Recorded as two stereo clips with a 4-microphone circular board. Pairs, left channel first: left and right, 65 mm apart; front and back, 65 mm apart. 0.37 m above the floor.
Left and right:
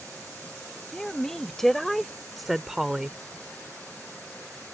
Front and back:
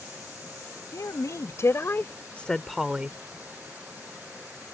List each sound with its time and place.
0.9 s a woman speaking: 10° left; by 3.2 s 155° right